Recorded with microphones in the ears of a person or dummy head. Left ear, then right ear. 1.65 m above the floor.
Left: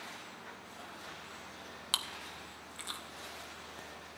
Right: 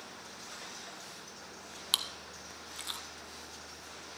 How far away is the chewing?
About 0.5 m.